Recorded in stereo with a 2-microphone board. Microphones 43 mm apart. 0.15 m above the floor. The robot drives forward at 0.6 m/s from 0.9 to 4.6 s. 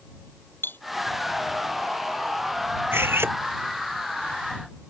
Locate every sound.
0.6 s cutlery clinking: 60° left (ahead or behind)
2.9 s cutlery clinking: 75° right (ahead or behind); by 3.4 s 80° right